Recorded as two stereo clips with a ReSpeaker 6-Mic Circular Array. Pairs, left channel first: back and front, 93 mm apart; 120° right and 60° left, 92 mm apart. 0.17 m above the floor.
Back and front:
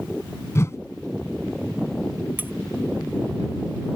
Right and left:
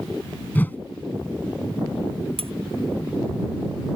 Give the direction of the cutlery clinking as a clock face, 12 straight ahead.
10 o'clock.